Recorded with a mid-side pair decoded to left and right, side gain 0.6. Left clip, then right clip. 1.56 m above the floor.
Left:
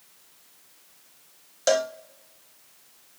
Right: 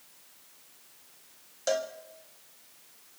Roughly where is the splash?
I don't hear a splash.